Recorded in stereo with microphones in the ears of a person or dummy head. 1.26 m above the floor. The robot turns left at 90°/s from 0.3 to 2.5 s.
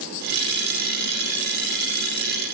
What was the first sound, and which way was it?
Only background noise.